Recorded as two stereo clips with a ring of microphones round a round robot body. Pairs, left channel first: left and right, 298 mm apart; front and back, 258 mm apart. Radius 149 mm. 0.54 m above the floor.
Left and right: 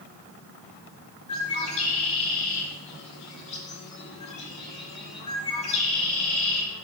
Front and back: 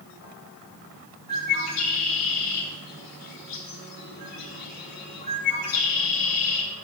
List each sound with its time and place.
1.3 s a bird: 20° left, 3 m